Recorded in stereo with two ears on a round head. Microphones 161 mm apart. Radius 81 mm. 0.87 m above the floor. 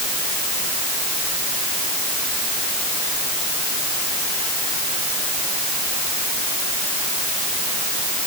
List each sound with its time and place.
Only background noise.